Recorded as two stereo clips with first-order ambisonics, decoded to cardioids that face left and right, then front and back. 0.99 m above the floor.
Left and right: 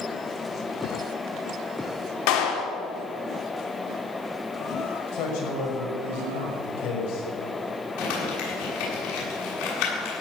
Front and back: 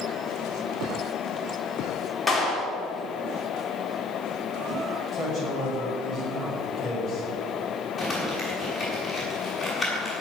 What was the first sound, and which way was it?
A clap, 85° left.